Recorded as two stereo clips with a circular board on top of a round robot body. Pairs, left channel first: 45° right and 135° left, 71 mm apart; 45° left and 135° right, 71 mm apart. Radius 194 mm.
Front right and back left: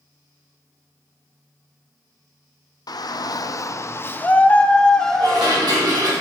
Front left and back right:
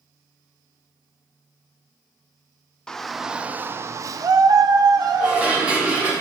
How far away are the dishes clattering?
About 3 m.